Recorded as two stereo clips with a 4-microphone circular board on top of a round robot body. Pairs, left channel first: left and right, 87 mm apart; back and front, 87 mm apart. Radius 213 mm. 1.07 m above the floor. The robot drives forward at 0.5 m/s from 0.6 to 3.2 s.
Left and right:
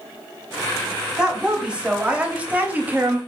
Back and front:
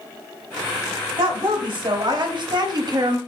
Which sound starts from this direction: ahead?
A woman speaking, at 1.2 s.